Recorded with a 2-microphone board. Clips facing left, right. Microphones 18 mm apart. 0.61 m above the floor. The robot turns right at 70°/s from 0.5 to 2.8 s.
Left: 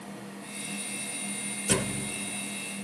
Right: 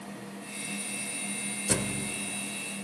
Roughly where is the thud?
Behind left.